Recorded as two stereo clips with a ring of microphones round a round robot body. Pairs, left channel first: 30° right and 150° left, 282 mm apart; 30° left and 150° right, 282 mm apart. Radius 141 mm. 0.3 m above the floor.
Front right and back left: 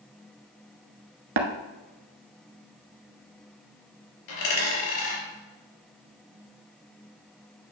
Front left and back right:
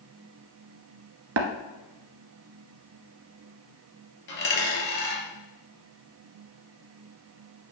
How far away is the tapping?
About 1.0 m.